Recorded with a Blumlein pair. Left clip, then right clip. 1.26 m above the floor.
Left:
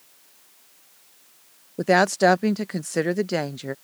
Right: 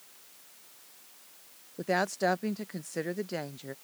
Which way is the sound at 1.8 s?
30° left.